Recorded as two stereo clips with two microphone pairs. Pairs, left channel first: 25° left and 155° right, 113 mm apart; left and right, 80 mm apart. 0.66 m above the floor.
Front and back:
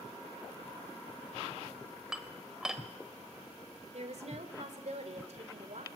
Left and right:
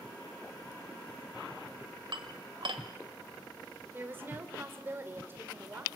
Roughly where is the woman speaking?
Behind right.